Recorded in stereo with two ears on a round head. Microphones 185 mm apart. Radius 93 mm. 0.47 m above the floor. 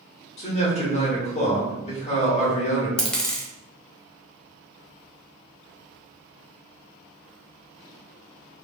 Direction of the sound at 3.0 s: 5° left (ahead or behind).